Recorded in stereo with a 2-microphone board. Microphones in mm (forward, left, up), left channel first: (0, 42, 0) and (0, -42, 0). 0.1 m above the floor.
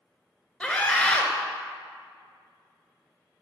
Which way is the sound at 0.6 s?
15° left (ahead or behind).